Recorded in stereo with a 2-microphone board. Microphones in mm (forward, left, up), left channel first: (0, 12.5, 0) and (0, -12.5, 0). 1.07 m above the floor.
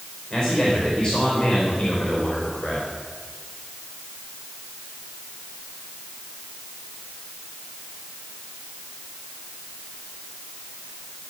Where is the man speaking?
40° left (ahead or behind), 4.5 m.